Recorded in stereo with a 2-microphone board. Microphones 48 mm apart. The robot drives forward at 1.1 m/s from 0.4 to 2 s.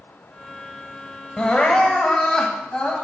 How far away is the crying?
About 0.8 m.